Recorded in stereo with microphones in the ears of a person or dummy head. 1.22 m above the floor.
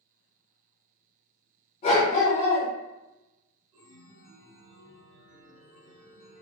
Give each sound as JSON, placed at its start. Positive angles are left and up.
{"t": 1.8, "sound": "a dog barking", "side_deg": 40, "distance_m": 1.4}
{"t": 3.7, "sound": "a chime", "side_deg": -35, "distance_m": 0.9}